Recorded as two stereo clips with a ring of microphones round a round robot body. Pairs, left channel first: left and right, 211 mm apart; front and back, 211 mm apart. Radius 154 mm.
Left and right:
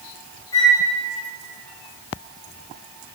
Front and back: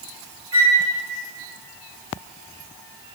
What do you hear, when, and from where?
0.5 s a flute: 170° left, 3 m